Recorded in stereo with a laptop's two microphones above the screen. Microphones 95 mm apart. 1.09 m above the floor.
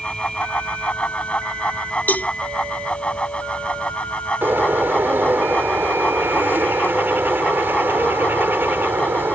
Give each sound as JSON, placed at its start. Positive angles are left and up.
{"t": 0.0, "sound": "a fan", "side_deg": 15}
{"t": 2.1, "sound": "a cowbell", "side_deg": 20}
{"t": 4.4, "sound": "a bird", "side_deg": -25}